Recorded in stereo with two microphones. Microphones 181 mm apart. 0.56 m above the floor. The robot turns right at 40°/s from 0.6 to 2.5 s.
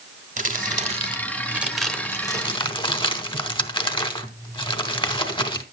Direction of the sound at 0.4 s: 45° right (ahead or behind).